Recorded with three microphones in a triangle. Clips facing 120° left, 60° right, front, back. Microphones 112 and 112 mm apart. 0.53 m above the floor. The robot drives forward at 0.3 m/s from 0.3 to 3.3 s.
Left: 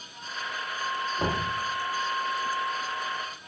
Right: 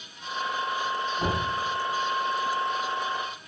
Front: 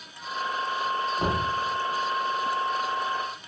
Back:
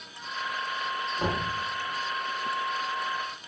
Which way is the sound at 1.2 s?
70° left.